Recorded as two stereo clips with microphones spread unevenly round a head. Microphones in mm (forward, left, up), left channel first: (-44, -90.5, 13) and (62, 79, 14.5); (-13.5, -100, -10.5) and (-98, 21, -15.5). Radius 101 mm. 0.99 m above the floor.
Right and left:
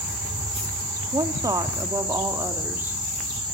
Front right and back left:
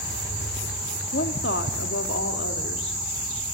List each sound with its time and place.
1.1 s a woman speaking: 15° right, 2 m; by 3.0 s 25° right, 3 m